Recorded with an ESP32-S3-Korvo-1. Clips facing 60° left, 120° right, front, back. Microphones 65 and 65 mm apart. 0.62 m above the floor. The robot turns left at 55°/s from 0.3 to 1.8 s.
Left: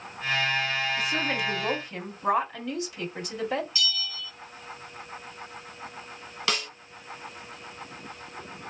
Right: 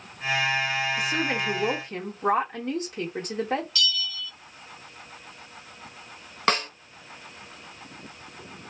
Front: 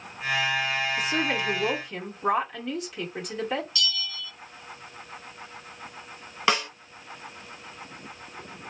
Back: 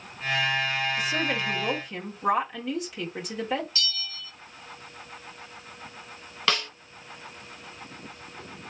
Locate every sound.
1.0 s a woman speaking: 45° right, 1.9 m; by 3.6 s 90° right, 1.9 m
3.8 s a bell: 130° left, 0.8 m
6.5 s a snare drum: 70° right, 0.6 m